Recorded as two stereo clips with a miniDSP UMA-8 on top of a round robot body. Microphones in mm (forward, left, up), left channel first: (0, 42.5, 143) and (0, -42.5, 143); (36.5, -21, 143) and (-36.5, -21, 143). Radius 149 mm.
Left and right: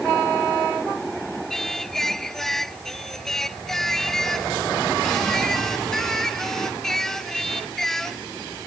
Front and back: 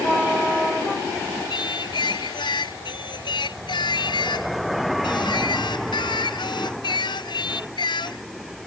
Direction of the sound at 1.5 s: 5° left.